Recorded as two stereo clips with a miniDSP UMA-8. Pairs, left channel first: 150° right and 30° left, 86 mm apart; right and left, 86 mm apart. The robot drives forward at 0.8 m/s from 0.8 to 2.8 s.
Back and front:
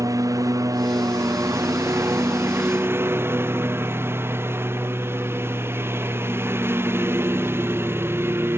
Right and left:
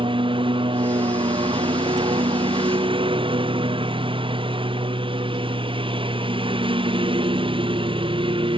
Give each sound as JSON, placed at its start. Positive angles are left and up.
{"t": 0.0, "sound": "a lawn mower", "azimuth_deg": 80}